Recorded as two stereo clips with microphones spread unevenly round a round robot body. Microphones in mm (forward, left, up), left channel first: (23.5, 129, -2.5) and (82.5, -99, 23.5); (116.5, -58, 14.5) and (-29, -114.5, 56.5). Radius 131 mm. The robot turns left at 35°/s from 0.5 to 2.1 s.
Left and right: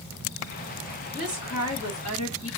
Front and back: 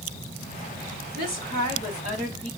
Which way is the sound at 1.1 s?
165° left.